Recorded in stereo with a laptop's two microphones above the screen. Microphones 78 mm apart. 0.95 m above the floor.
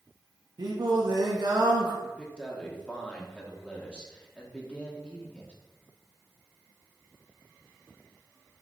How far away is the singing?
About 1.4 m.